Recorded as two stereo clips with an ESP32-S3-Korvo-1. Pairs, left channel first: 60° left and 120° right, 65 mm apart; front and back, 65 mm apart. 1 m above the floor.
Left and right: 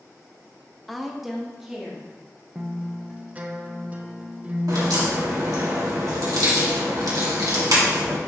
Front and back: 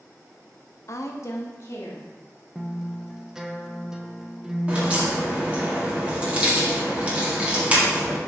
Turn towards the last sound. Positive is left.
turn(degrees=-110)